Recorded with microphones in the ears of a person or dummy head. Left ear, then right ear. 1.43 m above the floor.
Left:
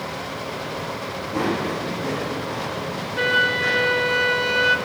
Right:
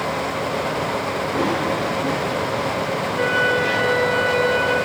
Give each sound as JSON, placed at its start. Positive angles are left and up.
{"t": 1.3, "sound": "running footsteps", "side_deg": 75, "distance_m": 5.0}
{"t": 3.2, "sound": "a flute", "side_deg": 30, "distance_m": 0.9}